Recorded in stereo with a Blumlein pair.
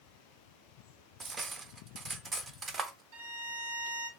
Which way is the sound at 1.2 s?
20° right.